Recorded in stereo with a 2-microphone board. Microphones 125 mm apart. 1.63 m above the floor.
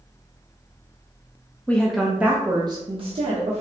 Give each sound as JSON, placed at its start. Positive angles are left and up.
{"t": 1.7, "sound": "a woman speaking", "side_deg": 10, "distance_m": 0.7}